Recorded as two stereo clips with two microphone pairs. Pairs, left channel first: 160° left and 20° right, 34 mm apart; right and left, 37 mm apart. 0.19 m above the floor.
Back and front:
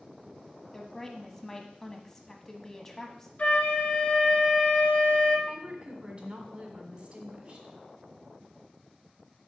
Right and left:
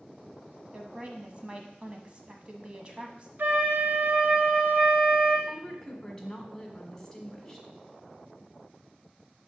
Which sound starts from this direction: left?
A woman speaking, at 0.7 s.